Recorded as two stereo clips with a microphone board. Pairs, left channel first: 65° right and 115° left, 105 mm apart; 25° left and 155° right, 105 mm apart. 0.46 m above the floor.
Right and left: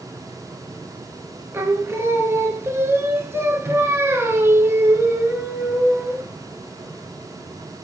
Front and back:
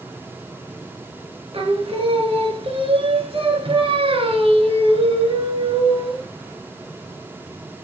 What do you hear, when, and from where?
1.5 s singing: 175° left, 1.1 m